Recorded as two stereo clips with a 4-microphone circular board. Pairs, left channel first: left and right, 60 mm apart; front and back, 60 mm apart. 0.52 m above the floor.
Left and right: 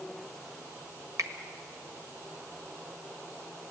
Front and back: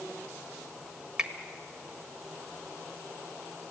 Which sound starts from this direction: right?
A finger snap, at 1.2 s.